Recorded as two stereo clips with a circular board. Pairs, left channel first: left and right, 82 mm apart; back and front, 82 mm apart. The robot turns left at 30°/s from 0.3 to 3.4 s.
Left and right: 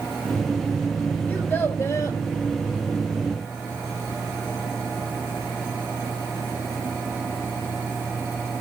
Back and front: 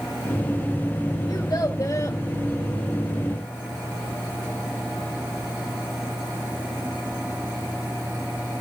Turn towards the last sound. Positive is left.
turn(degrees=90)